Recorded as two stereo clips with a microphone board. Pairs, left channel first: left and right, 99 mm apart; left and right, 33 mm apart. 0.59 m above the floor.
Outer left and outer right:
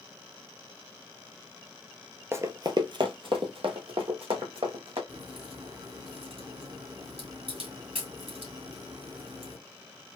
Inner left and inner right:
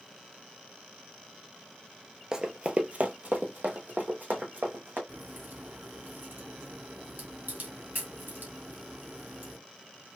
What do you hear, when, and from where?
2.3 s running footsteps: 25° right (ahead or behind), 0.6 m; by 5.0 s 75° right (ahead or behind), 2 m
5.1 s a crack: 85° right, 1.9 m